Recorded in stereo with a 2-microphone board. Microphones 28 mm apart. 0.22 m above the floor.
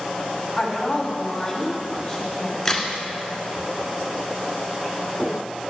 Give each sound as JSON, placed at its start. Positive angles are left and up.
{"t": 0.6, "sound": "a woman speaking", "side_deg": 0, "distance_m": 1.7}
{"t": 2.6, "sound": "a crack", "side_deg": 10, "distance_m": 1.9}